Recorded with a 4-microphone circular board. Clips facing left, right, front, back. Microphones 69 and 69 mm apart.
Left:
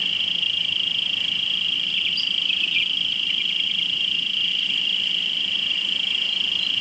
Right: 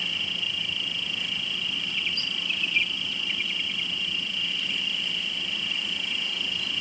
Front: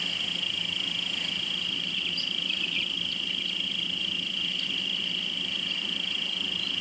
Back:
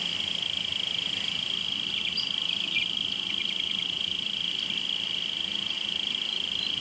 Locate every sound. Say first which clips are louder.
0.0 s an insect: left 4 dB, front 1 dB; 155° right